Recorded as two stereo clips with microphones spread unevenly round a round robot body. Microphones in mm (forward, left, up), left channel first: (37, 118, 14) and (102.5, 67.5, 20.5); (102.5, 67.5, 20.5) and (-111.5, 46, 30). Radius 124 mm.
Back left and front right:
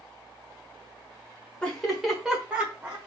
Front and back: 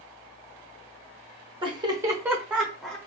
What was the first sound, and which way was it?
Laughter, 170° right.